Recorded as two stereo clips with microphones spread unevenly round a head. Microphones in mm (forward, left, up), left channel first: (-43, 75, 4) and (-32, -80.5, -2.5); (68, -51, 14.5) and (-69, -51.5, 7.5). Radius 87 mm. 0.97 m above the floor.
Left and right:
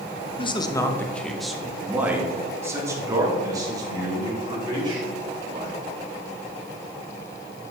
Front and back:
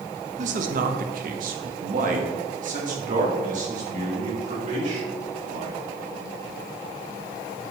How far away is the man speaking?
About 0.8 m.